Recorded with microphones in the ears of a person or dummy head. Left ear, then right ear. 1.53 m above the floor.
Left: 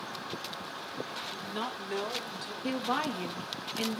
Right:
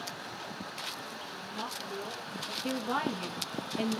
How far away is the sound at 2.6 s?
About 0.7 m.